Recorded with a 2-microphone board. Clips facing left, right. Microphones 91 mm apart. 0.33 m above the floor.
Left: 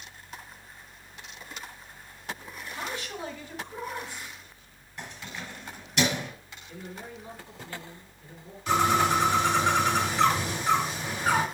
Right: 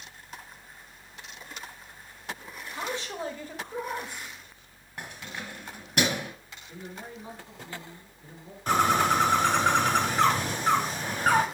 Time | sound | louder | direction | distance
2.7 | a man speaking | right 3 dB | 20° right (ahead or behind) | 1.5 m
5.0 | keys jangling | right 1 dB | 50° right (ahead or behind) | 3 m
6.7 | a man speaking | even | 20° right (ahead or behind) | 3.5 m
8.7 | a bird | even | 45° right (ahead or behind) | 2.5 m